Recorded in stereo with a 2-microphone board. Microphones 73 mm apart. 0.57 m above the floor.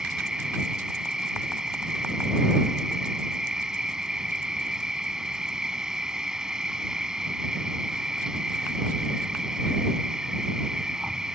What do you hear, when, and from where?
0.0 s an insect: 10° right (ahead or behind)